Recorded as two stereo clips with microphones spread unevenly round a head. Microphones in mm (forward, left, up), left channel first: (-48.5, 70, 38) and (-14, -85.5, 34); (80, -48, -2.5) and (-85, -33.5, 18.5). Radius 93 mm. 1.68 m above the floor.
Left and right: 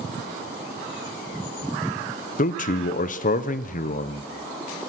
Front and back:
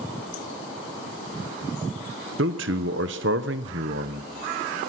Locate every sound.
2.4 s a man speaking: 140° left, 1.4 m